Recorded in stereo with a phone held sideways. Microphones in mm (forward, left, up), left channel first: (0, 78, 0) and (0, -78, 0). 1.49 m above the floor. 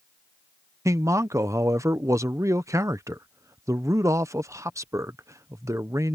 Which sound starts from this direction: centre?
A man speaking, at 0.8 s.